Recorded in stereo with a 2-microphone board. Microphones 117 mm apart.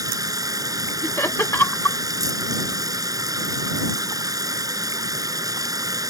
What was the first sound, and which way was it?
Running water, 30° right (ahead or behind).